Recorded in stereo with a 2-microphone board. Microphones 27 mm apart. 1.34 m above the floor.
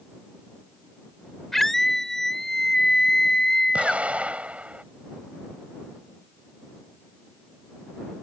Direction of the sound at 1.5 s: 10° left (ahead or behind).